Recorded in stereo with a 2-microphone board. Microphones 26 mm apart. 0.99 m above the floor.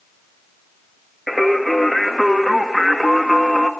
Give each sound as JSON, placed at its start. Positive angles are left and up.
{"t": 1.3, "sound": "singing", "side_deg": 5, "distance_m": 1.9}